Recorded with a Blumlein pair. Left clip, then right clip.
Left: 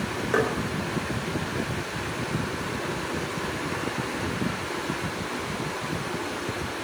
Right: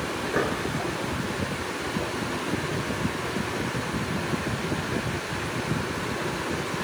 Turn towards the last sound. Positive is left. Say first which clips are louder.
# left 3 dB
turn(degrees=60)